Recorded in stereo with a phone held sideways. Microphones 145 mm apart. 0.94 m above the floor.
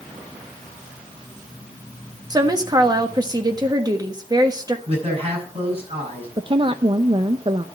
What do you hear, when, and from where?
2.3 s a woman speaking: 25° right (ahead or behind), 1.5 m
4.9 s a man speaking: 45° right (ahead or behind), 9.5 m
6.4 s a woman speaking: 35° right (ahead or behind), 0.7 m